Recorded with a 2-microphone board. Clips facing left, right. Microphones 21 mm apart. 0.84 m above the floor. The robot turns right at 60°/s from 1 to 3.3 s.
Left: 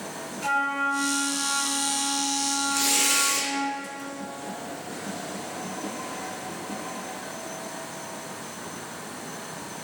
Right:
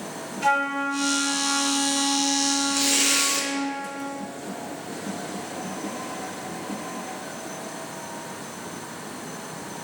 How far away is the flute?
About 0.9 m.